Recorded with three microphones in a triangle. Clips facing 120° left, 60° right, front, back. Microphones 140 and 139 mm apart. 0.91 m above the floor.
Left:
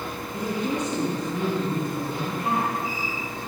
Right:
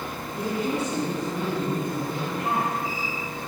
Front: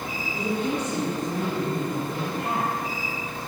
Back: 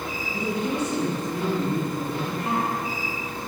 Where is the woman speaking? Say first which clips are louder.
Even, even; 30° left, 5.5 m; by 2.8 s 5° left, 5.5 m.